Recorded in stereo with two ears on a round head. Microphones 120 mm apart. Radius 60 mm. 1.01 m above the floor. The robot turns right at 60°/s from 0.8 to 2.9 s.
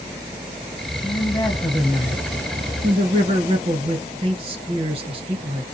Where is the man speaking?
120° left, 1.2 m; by 5.6 s 130° right, 1.2 m.